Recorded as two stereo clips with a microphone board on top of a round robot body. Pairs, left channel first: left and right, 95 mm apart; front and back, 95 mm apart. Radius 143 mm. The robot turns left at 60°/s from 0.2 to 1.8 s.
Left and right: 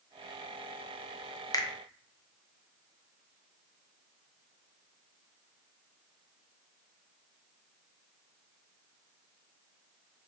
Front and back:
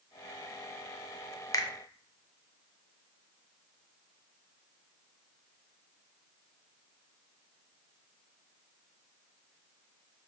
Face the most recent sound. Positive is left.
turn(degrees=35)